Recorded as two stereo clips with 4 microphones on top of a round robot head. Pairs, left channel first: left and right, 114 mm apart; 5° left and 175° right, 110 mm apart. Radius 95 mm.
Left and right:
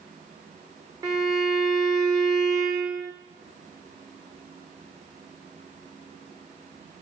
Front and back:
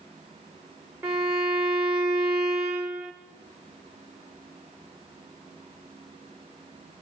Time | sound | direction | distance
1.0 | a violin | 115° right | 0.8 m